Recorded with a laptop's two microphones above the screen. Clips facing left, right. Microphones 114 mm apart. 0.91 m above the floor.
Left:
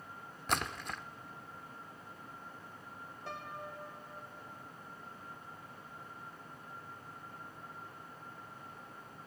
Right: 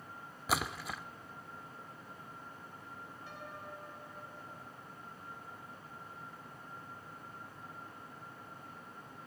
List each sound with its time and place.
0.5 s a splash: 5° right (ahead or behind), 0.5 m
3.3 s a piano: 80° left, 1.9 m